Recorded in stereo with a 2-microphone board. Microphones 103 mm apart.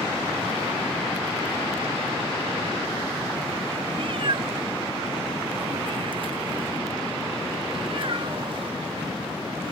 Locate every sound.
3.9 s a cat meowing: 55° right (ahead or behind), 0.6 m